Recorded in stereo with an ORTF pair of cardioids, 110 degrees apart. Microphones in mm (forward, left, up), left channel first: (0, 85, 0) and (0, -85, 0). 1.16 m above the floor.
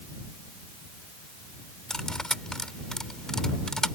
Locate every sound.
1.9 s cutlery clinking: 5° left